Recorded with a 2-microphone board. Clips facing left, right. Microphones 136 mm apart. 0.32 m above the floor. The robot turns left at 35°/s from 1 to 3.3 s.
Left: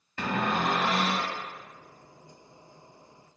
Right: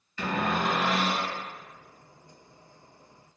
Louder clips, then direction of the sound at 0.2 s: Even; 60° left (ahead or behind).